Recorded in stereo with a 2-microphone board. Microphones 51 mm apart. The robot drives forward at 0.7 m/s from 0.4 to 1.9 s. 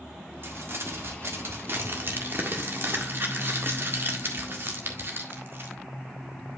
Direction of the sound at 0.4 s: 55° right (ahead or behind).